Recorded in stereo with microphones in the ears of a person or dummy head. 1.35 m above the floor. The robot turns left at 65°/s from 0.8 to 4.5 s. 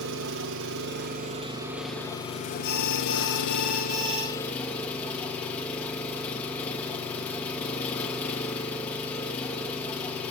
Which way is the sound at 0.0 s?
110° right.